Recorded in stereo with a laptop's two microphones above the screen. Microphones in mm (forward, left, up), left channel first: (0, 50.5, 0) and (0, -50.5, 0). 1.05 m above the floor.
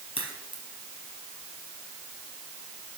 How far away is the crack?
About 3.5 m.